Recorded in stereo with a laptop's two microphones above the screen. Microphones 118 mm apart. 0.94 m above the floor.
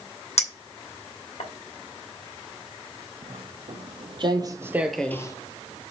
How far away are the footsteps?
About 2.5 m.